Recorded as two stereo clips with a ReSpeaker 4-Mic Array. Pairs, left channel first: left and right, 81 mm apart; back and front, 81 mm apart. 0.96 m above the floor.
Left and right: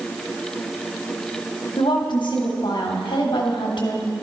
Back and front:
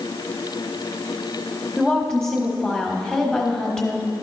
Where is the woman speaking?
100° left, 1.2 m.